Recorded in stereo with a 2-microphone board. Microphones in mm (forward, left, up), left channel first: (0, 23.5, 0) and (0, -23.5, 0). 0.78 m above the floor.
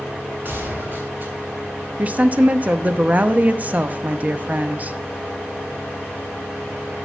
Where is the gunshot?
45° right (ahead or behind), 3.5 m.